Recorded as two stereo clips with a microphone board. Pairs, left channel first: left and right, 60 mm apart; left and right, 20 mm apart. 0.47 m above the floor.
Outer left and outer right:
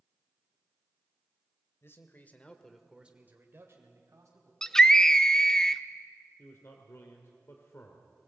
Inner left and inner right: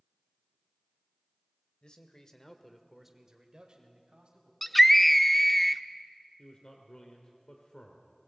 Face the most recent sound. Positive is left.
turn(degrees=45)  # may be behind; listen again after turning